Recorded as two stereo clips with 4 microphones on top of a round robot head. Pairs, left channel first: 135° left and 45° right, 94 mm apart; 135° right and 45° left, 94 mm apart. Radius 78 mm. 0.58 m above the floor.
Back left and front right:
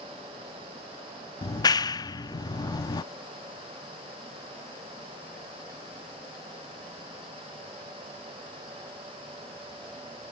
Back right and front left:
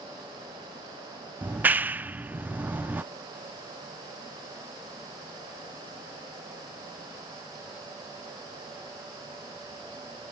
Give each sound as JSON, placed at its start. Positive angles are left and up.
{"t": 1.4, "sound": "a clap", "azimuth_deg": 110}